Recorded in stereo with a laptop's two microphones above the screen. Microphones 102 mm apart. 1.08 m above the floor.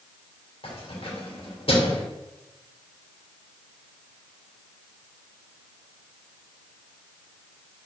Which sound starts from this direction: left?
Keys jangling, at 0.6 s.